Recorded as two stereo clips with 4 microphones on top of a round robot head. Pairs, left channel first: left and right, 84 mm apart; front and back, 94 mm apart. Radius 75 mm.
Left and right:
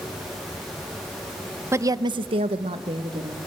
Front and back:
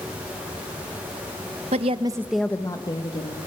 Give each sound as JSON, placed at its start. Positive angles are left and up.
{"t": 1.7, "sound": "a woman speaking", "azimuth_deg": -150, "distance_m": 1.2}